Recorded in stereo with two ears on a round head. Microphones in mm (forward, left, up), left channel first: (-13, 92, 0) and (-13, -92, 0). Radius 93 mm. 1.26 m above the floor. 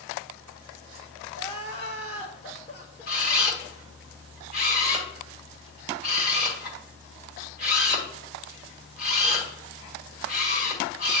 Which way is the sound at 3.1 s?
50° left (ahead or behind).